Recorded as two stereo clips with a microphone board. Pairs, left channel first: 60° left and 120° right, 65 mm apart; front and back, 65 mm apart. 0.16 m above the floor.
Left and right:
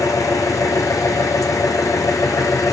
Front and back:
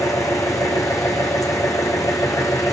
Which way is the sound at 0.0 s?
30° left.